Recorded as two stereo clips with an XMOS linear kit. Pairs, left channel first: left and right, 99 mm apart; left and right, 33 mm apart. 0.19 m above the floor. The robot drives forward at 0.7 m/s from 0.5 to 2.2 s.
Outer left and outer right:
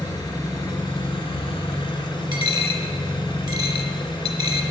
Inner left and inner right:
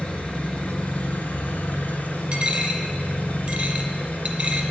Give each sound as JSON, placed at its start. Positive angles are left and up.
{"t": 0.0, "sound": "an engine running", "side_deg": 45, "distance_m": 1.1}
{"t": 2.3, "sound": "a dropped coin", "side_deg": -45, "distance_m": 0.7}